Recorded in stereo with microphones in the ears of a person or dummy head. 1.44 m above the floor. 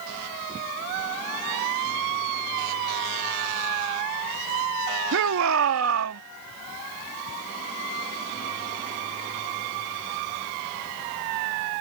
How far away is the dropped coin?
No dropped coin in this recording.